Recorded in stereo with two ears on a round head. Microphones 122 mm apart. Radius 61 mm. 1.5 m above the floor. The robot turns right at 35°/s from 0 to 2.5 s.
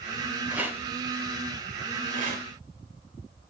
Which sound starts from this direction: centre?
A rattle, at 0.5 s.